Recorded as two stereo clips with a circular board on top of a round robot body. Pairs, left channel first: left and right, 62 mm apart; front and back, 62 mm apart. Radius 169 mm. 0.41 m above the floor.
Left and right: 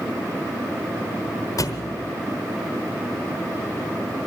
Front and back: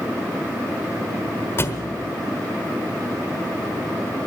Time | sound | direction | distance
1.6 | a thud | 55° left | 1.4 m